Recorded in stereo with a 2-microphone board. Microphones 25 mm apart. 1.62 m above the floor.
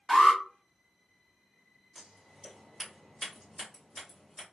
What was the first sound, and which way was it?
An alarm, centre (ahead or behind).